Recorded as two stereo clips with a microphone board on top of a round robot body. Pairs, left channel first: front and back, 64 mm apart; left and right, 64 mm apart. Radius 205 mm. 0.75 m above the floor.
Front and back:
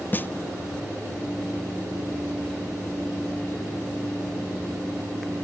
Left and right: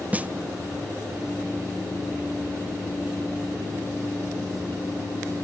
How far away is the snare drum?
About 0.6 m.